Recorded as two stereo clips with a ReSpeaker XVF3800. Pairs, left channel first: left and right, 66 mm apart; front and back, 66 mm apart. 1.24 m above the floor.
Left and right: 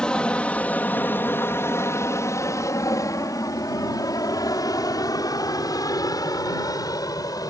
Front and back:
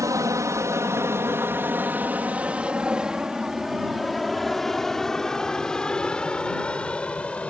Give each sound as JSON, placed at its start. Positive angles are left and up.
{"t": 0.0, "sound": "an aircraft", "azimuth_deg": 165}